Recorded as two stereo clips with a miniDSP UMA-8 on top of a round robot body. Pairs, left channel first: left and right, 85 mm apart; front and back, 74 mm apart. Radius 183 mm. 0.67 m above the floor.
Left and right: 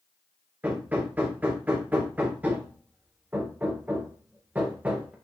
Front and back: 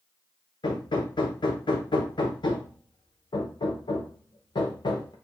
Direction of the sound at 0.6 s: 15° right.